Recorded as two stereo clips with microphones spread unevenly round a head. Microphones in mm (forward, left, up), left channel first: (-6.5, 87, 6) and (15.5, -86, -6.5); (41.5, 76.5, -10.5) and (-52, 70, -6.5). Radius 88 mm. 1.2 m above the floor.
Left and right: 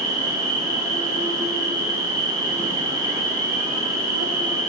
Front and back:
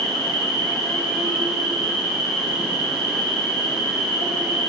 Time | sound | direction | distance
0.0 | an insect | 25° right | 1.6 m